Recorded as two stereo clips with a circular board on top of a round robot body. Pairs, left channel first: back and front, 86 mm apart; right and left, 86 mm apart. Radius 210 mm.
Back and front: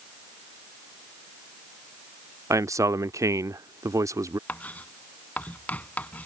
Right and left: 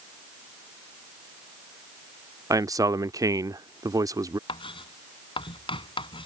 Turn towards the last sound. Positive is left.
turn(degrees=-105)